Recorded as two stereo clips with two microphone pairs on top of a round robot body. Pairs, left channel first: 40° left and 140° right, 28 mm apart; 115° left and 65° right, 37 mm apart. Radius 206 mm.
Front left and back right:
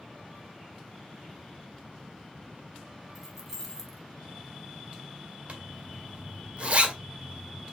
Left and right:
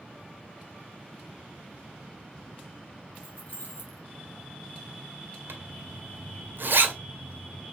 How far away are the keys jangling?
About 1.7 m.